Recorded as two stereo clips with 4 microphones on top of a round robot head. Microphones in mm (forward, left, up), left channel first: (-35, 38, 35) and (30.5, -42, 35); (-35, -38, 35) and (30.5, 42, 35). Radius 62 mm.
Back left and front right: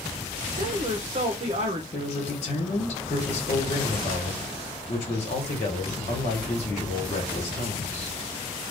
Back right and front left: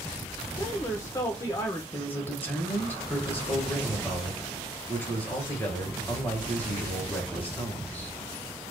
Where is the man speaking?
155° left, 1.2 m.